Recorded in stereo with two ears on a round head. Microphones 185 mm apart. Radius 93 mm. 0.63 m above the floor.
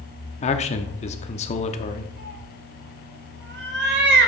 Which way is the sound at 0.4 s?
35° left (ahead or behind).